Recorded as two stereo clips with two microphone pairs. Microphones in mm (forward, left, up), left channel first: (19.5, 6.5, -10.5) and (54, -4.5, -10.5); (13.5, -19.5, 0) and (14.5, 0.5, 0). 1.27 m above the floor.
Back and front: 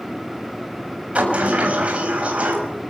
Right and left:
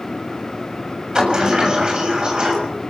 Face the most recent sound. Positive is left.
turn(degrees=40)